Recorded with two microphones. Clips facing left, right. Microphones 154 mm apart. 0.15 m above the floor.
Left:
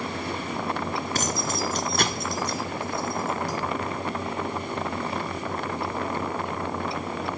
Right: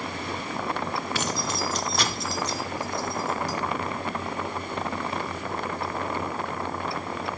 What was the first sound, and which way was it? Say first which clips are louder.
Keys jangling: left 1 dB; 40° left (ahead or behind).